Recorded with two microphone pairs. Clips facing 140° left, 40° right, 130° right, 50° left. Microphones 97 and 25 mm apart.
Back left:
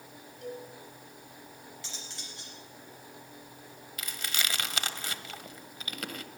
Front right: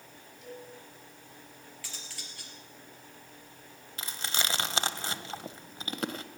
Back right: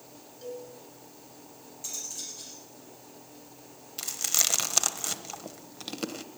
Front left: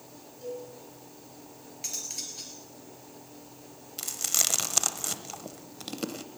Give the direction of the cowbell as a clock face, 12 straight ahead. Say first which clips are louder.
Back left 5 dB, front left 2 dB; 7 o'clock.